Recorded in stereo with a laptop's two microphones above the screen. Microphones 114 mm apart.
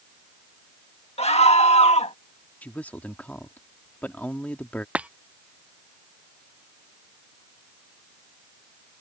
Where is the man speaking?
15° left (ahead or behind).